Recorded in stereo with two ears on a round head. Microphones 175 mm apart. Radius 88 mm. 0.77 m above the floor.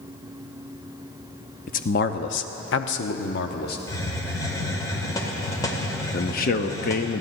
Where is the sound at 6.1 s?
45° left (ahead or behind), 1.0 m.